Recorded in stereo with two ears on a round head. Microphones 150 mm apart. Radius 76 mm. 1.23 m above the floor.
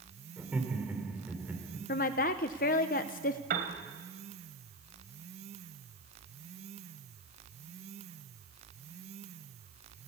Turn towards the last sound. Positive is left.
turn(degrees=-55)  # may be behind; listen again after turning